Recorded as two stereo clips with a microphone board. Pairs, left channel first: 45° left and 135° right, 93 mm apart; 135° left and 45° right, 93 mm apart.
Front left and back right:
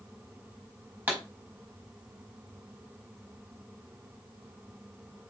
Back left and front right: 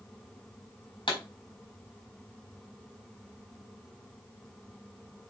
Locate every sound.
1.1 s a pop: 155° left, 4 m